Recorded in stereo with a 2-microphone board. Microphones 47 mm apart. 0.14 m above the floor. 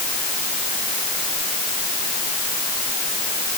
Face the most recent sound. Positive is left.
No sound to turn to.